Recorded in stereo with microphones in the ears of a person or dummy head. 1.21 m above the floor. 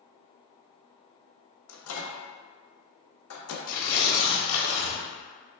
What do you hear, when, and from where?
1.7 s a microwave: 75° left (ahead or behind), 0.7 m
3.7 s tearing paper: 55° left (ahead or behind), 1.1 m